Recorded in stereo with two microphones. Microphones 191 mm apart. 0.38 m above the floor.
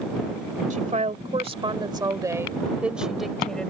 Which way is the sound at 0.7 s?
45° right (ahead or behind).